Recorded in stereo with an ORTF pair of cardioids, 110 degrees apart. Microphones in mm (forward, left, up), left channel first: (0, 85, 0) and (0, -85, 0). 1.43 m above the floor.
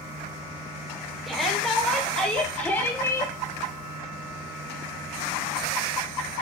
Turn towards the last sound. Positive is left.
turn(degrees=20)